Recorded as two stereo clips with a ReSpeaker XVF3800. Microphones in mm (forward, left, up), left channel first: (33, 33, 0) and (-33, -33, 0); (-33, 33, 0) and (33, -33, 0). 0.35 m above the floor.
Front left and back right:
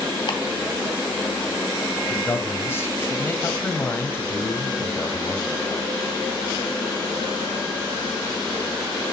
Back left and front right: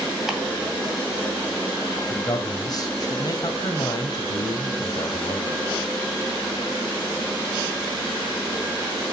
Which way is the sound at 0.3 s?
40° left.